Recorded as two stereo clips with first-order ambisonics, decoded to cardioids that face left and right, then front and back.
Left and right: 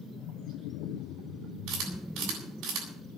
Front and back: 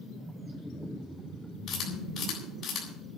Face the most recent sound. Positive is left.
turn(degrees=-55)